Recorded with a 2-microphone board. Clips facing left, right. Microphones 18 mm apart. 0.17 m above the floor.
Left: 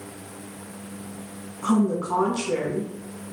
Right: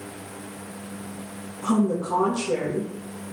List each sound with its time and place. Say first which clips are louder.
1.6 s a woman speaking: left 1 dB; 35° left (ahead or behind), 1.2 m